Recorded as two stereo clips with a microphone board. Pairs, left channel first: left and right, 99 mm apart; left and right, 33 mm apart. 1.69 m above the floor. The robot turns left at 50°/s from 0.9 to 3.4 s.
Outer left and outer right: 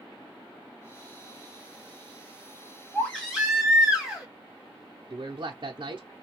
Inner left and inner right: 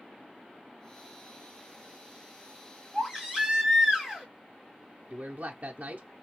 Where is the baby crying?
15° left (ahead or behind), 1.9 m; by 4.3 s 10° right (ahead or behind), 1.9 m.